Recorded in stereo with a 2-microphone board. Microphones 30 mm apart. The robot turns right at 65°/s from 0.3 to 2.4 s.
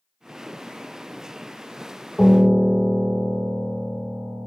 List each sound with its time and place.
2.2 s a piano: 20° right (ahead or behind), 0.9 m; by 4.5 s 30° right (ahead or behind), 0.9 m